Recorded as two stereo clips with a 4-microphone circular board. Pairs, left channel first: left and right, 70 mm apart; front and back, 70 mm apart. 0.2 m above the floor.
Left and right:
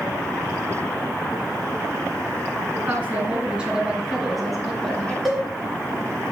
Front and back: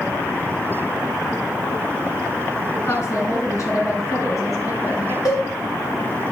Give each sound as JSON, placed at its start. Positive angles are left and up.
{"t": 2.8, "sound": "a woman speaking", "azimuth_deg": -30, "distance_m": 2.5}
{"t": 5.2, "sound": "a cowbell", "azimuth_deg": 5, "distance_m": 3.5}